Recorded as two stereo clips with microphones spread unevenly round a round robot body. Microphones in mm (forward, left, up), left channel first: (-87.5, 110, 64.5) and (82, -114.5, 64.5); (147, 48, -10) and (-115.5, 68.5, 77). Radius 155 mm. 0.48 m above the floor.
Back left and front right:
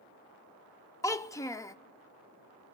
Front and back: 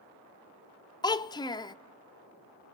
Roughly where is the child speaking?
Ahead left.